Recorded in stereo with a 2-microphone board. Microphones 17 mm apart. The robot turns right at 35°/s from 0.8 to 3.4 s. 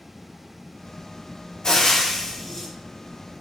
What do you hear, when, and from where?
1.6 s frying: 135° left, 1.0 m; by 2.7 s 170° left, 1.0 m